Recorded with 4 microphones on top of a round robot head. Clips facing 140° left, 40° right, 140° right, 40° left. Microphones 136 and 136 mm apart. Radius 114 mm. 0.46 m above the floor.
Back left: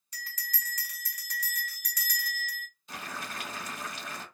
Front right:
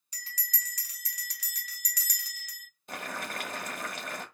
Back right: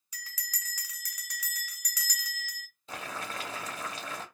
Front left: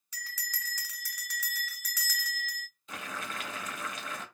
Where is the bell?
140° left, 1.5 m.